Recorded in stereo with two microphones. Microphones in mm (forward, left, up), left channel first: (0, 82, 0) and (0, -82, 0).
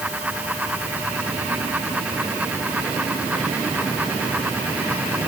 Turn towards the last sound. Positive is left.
No sound to turn to.